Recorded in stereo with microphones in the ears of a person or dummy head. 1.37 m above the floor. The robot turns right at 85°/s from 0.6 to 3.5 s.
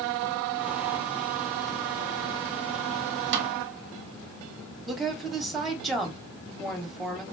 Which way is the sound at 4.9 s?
Centre (ahead or behind).